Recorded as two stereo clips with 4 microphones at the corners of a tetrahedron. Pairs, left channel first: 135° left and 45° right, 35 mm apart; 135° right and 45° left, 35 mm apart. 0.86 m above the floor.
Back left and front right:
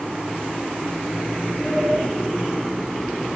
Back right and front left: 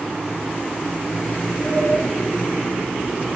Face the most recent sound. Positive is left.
turn(degrees=-155)